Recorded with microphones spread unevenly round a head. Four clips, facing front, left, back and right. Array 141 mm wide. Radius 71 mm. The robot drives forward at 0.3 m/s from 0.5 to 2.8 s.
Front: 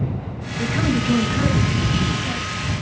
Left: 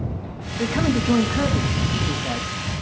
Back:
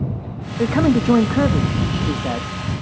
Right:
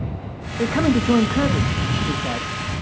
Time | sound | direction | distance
0.6 | a man speaking | 155° right | 0.8 m